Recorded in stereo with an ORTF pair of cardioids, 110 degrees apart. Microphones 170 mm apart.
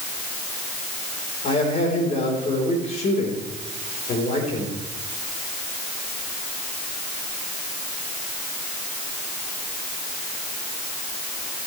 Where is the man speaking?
40° left, 4.5 m.